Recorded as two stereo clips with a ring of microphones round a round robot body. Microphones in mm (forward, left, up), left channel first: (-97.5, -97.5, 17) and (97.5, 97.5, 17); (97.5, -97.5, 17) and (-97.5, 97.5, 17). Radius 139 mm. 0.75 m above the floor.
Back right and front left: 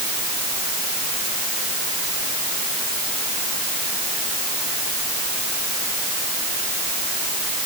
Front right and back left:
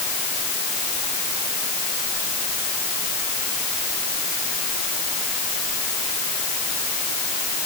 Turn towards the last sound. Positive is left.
No sound to turn to.